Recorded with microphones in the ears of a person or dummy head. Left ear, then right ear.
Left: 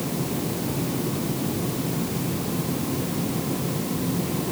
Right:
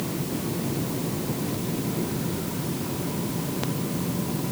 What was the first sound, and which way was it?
Only background noise.